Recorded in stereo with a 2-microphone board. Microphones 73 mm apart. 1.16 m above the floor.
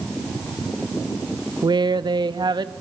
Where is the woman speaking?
85° right, 0.8 m.